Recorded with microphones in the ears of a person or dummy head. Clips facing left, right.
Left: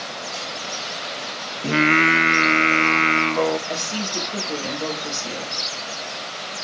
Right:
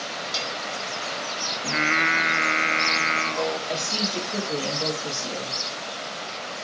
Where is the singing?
50° left (ahead or behind), 0.7 m.